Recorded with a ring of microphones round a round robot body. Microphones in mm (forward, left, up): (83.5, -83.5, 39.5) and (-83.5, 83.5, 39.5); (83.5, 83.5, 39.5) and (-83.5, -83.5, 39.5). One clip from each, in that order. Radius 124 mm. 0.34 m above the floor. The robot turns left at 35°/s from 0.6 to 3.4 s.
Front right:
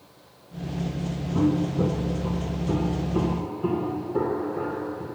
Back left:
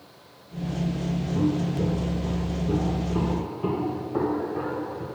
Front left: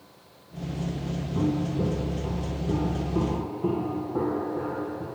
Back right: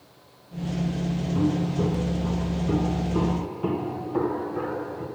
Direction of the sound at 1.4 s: 65° right.